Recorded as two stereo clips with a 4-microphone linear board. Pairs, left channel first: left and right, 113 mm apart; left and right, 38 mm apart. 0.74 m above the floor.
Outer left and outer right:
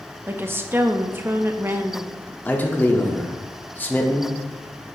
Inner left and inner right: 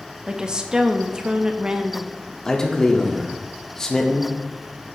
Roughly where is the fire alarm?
No fire alarm in this recording.